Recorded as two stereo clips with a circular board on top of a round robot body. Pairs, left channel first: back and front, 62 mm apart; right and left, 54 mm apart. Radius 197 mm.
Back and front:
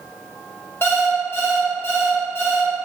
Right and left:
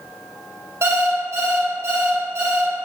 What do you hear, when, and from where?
0.8 s an alarm clock: 125° left, 1.1 m